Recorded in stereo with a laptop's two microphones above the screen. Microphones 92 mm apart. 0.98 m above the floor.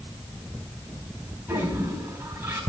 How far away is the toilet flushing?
About 4 m.